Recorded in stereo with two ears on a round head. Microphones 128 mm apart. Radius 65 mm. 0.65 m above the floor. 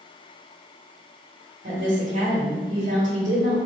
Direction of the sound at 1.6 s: 55° right (ahead or behind).